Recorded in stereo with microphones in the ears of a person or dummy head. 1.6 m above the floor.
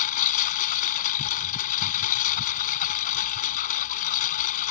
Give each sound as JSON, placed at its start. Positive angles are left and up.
{"t": 0.0, "sound": "a lawn mower", "side_deg": 45}